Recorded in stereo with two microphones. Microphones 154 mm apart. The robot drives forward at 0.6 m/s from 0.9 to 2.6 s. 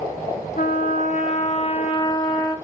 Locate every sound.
0.6 s a trumpet: 55° left (ahead or behind), 0.8 m; by 2.5 s 30° left (ahead or behind), 1.5 m